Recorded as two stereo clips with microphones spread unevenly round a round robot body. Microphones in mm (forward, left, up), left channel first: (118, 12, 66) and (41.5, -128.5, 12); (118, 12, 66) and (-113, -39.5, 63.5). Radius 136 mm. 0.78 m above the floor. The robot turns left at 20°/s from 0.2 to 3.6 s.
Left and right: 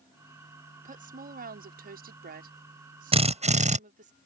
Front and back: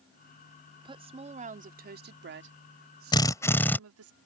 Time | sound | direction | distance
0.8 | a woman speaking | 95° right | ?
3.1 | a drill | 60° right | ?